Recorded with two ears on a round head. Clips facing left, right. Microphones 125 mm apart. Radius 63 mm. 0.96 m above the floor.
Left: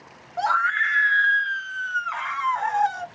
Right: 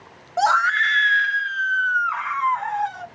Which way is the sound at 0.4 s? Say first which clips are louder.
Right 4 dB; 55° right (ahead or behind).